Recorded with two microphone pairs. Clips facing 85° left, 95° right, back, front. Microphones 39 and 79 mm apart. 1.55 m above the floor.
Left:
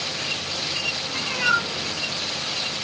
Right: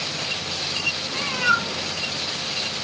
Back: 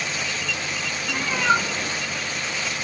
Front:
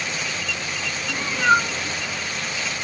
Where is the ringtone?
No ringtone in this recording.